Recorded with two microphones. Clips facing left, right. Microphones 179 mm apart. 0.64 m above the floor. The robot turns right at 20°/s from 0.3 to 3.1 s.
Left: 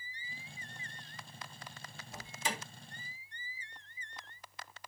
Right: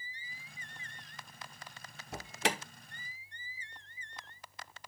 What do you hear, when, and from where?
2.1 s an alarm: 70° right (ahead or behind), 1.0 m; by 2.6 s 75° right (ahead or behind), 1.0 m